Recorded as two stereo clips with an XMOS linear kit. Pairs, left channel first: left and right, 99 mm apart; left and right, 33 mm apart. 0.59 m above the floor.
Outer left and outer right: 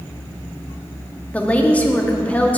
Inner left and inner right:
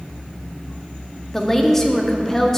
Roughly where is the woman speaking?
Centre.